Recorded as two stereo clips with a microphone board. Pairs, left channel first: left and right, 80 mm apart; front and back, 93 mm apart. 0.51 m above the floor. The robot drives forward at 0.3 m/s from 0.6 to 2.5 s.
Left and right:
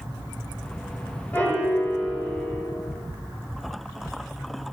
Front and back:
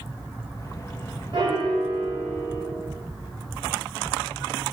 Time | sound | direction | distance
1.3 | a piano | 160° left | 1.6 m